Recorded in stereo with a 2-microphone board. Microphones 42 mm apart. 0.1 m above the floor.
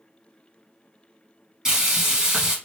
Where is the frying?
15° right (ahead or behind), 1.9 m.